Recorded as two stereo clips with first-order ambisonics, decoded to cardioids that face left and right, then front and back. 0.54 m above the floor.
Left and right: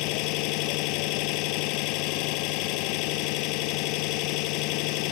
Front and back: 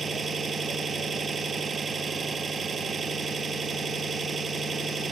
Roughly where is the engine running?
Left.